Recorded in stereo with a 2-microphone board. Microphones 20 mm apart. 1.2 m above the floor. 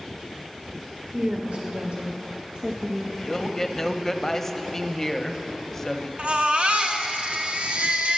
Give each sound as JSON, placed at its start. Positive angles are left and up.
{"t": 1.1, "sound": "a woman speaking", "side_deg": -60, "distance_m": 1.1}
{"t": 3.2, "sound": "a man speaking", "side_deg": 20, "distance_m": 0.7}
{"t": 6.2, "sound": "a baby crying", "side_deg": -60, "distance_m": 0.9}